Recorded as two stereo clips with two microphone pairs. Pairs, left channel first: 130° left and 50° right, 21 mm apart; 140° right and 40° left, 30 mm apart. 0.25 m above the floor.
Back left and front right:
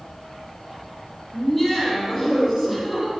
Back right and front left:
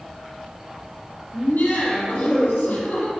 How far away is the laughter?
About 5.5 m.